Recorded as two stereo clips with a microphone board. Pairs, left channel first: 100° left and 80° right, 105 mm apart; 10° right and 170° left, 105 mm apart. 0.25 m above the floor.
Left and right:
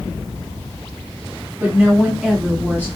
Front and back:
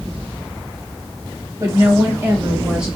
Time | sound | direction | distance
1.6 | a woman speaking | 140° right | 1.2 m